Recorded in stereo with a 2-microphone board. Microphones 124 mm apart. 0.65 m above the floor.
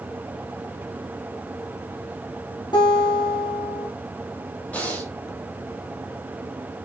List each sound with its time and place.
2.7 s a guitar: 40° left (ahead or behind), 6 m
4.7 s breathing: 10° left (ahead or behind), 4 m